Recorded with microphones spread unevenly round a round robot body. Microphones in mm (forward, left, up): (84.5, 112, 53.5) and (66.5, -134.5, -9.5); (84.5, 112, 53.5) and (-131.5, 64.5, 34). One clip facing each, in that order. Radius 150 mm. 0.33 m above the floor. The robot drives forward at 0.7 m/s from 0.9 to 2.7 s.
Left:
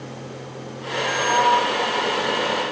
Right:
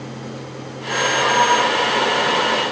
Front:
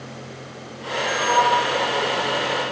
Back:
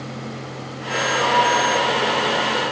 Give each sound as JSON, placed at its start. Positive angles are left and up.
{"t": 1.1, "sound": "a sliding door", "azimuth_deg": -120, "distance_m": 5.5}